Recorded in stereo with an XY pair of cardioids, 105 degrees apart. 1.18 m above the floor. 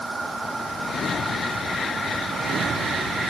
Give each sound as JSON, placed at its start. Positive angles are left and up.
{"t": 0.0, "sound": "a machine running", "azimuth_deg": -15}